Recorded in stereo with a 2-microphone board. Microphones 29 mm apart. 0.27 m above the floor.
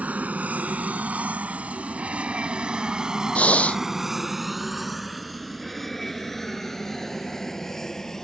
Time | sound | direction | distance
0.0 | an aircraft | 55° right (ahead or behind) | ?
3.4 | breathing | 50° left (ahead or behind) | ?